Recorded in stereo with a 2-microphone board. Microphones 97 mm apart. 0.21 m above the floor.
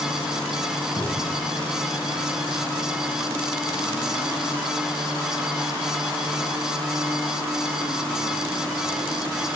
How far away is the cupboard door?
About 5.5 m.